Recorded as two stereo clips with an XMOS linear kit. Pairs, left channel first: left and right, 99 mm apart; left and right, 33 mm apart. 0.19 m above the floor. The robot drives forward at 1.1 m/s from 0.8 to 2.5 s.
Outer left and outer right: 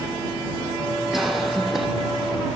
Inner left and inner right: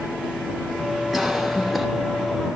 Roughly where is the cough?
Centre.